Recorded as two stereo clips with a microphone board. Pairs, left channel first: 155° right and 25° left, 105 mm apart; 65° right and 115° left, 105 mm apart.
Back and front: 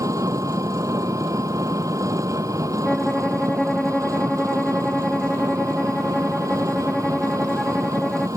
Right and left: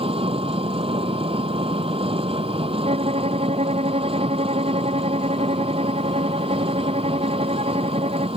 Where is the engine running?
80° left.